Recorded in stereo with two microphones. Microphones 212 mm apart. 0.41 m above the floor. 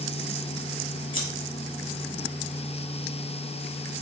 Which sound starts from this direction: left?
Scissors, at 1.1 s.